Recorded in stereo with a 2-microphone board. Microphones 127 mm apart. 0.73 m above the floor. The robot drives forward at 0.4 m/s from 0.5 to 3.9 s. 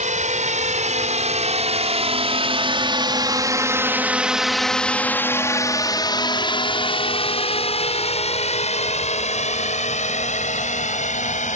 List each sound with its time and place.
0.0 s a drone: 65° right (ahead or behind); by 11.6 s 65° left (ahead or behind)